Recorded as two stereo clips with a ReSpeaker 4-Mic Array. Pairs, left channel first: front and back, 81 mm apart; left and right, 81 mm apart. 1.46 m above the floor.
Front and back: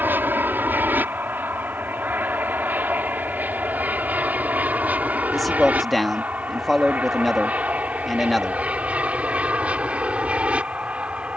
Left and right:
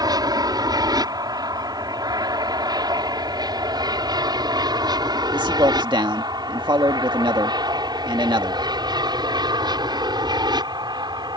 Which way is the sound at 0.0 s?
115° right.